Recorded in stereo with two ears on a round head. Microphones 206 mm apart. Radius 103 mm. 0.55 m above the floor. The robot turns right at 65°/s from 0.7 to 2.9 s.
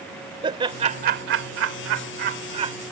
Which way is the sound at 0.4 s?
25° right (ahead or behind).